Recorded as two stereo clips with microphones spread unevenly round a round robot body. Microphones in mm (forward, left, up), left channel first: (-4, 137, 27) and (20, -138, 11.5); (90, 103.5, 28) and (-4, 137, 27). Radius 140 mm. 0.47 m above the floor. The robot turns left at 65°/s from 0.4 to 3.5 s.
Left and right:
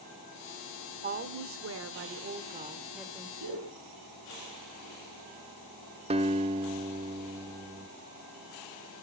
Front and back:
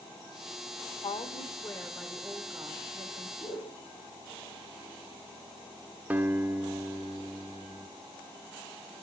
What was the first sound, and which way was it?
A woman speaking, 40° right.